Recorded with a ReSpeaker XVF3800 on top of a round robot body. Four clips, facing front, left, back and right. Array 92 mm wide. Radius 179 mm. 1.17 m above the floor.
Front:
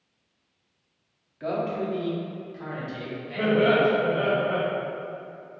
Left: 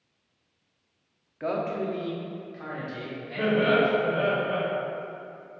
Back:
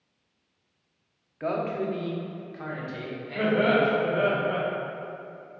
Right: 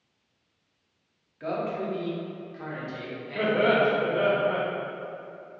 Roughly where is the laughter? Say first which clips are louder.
Even, front 2 dB; behind right.